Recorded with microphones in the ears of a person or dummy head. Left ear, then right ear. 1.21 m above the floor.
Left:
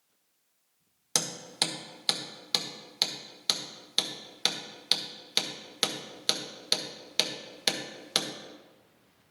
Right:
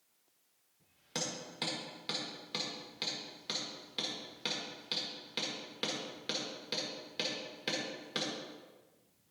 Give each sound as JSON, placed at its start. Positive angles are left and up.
{"t": 1.1, "sound": "hammering", "side_deg": 40, "distance_m": 1.6}